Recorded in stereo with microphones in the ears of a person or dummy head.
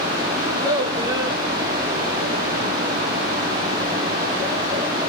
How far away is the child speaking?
About 0.8 m.